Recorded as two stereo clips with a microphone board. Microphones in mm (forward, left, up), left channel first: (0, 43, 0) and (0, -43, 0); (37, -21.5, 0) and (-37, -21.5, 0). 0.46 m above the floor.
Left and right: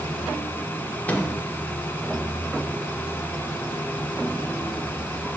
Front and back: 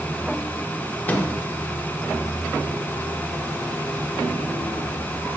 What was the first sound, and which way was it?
A microwave, 40° left.